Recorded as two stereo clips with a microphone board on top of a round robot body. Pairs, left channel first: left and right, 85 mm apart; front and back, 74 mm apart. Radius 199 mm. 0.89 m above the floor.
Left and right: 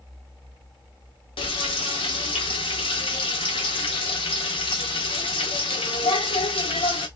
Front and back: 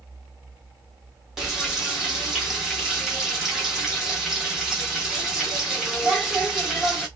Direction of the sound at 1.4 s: 95° left.